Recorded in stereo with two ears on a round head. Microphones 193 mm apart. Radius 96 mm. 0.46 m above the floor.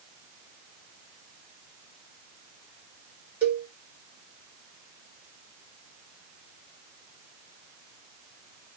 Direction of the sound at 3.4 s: 10° right (ahead or behind).